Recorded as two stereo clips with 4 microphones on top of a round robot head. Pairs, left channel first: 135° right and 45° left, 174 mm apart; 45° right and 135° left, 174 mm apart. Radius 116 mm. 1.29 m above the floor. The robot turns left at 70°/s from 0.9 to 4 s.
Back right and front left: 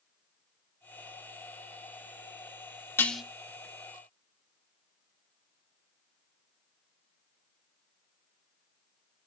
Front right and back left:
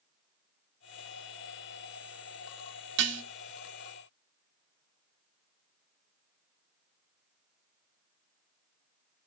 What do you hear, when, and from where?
3.0 s dishes clattering: 150° left, 1.4 m; by 3.2 s 130° left, 1.4 m